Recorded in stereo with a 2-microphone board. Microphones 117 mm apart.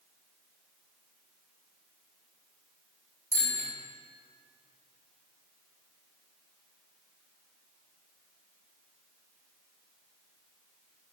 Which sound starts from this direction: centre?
A bicycle bell, at 3.3 s.